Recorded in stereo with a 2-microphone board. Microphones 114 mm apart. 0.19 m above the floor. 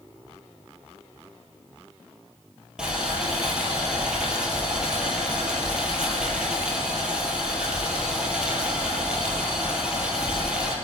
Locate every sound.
2.8 s boiling: 5° right (ahead or behind), 2.5 m